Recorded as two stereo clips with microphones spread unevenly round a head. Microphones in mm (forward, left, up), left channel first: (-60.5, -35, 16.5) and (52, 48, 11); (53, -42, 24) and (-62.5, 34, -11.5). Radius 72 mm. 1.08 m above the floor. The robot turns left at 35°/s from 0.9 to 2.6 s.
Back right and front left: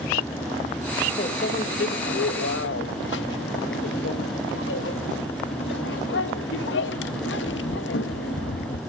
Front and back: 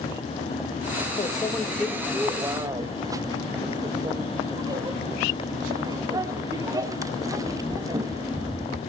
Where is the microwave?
95° right, 0.8 m; by 8.8 s 145° right, 0.8 m.